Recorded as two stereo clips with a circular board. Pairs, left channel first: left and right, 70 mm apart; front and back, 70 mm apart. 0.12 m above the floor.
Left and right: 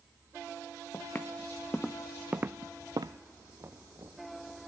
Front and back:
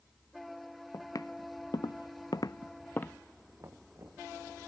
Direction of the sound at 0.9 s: 35° left.